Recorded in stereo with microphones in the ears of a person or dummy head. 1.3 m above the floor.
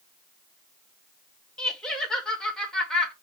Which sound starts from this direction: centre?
Laughter, at 1.6 s.